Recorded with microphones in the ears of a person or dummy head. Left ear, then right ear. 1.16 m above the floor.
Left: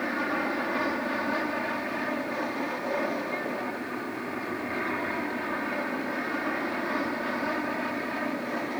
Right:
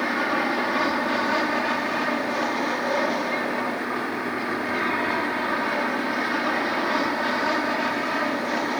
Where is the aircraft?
20° right (ahead or behind); by 8.8 s 25° right (ahead or behind).